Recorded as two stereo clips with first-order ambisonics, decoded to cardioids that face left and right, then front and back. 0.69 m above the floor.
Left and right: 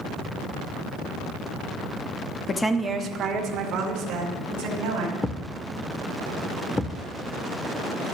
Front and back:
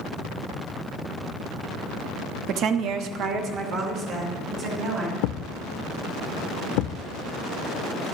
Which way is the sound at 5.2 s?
5° left.